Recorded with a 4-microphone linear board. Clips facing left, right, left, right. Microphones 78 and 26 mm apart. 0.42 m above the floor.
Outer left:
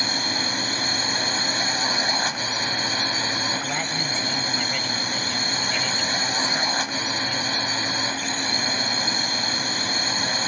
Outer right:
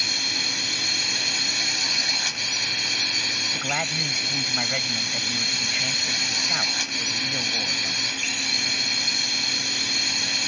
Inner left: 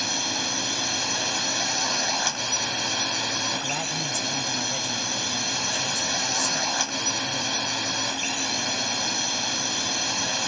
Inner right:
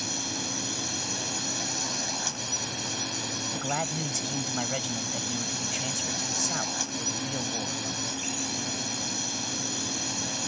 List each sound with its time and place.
0.0 s a drone: 35° left (ahead or behind)
3.5 s a man speaking: 15° right (ahead or behind)